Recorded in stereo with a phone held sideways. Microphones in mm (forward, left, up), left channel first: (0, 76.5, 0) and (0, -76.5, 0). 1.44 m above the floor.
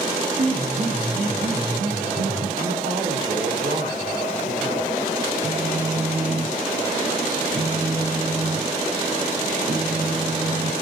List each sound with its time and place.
0.4 s a piano: 75° right (ahead or behind), 3.5 m
2.6 s a man speaking: 65° right (ahead or behind), 5.5 m
5.4 s a phone buzzing: 40° right (ahead or behind), 1.1 m